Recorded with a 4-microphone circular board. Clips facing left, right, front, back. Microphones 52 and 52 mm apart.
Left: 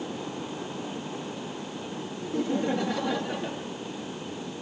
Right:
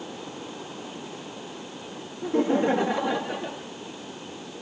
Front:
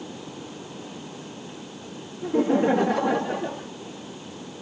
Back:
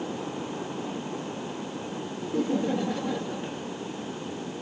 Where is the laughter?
45° right; by 3.7 s straight ahead.